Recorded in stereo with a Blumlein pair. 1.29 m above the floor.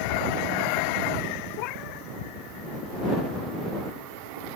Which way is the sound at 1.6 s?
40° left.